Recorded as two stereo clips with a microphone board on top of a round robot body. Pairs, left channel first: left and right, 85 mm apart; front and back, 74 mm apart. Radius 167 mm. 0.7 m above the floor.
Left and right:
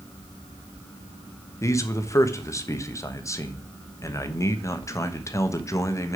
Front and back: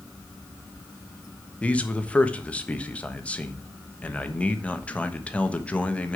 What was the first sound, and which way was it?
A man speaking, 65° left.